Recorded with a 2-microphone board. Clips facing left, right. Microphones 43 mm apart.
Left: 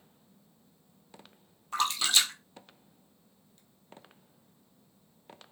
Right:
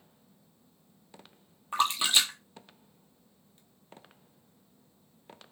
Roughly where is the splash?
Right.